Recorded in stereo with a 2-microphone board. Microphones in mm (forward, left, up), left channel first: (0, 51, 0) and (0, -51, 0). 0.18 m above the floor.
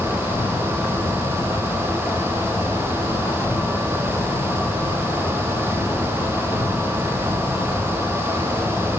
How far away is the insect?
About 1.7 m.